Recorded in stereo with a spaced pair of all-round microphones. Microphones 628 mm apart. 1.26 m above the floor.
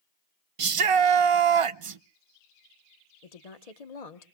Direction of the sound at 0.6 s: 55° right (ahead or behind).